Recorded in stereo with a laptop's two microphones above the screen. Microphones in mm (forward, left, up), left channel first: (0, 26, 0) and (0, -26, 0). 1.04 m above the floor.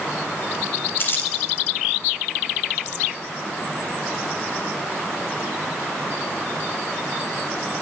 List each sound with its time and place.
1.0 s crumpling: 45° left (ahead or behind), 3 m